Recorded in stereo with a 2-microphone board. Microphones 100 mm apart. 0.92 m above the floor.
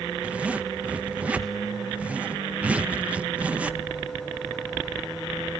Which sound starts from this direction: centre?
A zipper, at 0.2 s.